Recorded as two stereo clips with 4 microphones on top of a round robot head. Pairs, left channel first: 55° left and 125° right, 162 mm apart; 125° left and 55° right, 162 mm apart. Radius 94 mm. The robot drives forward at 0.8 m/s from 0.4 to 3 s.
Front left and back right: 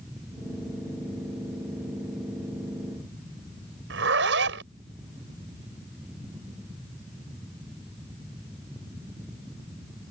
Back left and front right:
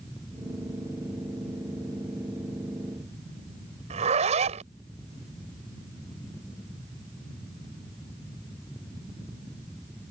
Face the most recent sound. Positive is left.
turn(degrees=-110)